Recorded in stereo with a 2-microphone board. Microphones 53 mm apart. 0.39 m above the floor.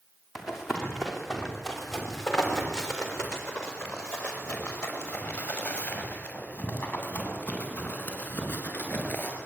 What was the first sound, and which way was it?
Running footsteps, 5° right (ahead or behind).